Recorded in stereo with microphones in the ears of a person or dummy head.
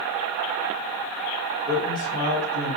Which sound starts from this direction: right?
A man speaking, at 1.7 s.